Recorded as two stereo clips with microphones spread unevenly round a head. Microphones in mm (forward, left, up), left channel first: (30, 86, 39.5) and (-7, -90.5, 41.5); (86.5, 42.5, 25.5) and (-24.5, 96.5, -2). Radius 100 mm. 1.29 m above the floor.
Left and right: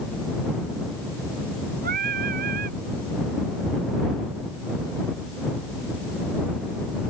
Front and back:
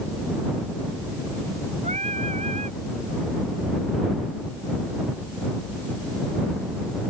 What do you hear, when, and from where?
1.8 s singing: 145° right